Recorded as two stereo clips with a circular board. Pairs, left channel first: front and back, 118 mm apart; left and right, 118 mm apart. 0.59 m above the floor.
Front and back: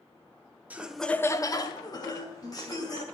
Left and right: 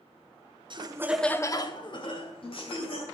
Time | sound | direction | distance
0.7 | laughter | 110° right | 0.8 m